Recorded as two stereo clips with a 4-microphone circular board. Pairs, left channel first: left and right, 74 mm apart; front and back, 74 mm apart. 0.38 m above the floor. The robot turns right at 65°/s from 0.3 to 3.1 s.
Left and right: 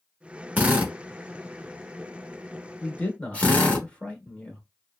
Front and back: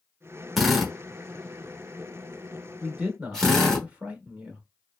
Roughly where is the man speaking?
Behind left.